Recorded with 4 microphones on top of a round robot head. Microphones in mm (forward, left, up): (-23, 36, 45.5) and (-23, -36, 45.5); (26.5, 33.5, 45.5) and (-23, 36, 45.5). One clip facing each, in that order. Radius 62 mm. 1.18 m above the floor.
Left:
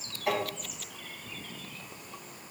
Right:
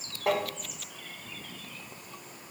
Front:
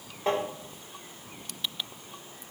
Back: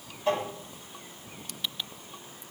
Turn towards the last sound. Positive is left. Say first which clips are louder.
# right 2 dB, even
turn(degrees=-45)